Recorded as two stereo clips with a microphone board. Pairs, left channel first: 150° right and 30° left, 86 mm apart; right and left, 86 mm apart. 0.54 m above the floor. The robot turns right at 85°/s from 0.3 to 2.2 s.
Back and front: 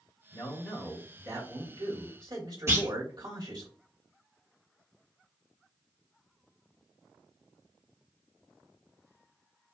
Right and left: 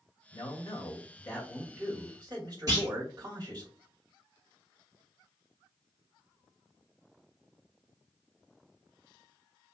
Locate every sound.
0.3 s a man speaking: 105° right, 1.8 m; by 3.7 s 55° left, 1.8 m
2.7 s a clunk: 70° left, 1.6 m